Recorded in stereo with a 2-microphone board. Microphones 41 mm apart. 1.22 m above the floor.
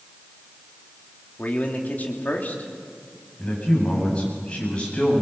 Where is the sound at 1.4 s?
45° left (ahead or behind), 3 m.